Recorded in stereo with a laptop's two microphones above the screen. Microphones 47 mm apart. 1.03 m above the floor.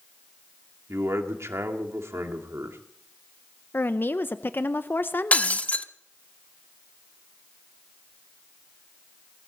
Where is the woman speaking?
50° left (ahead or behind), 0.6 m.